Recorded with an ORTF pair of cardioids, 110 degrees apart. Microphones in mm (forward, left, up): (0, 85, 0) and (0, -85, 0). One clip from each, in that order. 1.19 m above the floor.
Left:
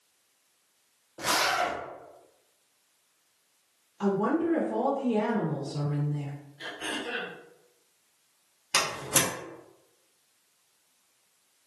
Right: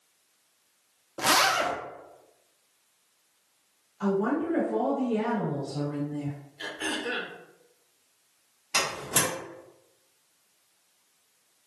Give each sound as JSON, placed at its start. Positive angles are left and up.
{"t": 1.2, "sound": "a zipper", "azimuth_deg": -30, "distance_m": 0.6}
{"t": 4.0, "sound": "a woman speaking", "azimuth_deg": 40, "distance_m": 1.1}
{"t": 6.6, "sound": "throat clearing", "azimuth_deg": -30, "distance_m": 0.8}
{"t": 8.7, "sound": "a door slam", "azimuth_deg": 40, "distance_m": 1.1}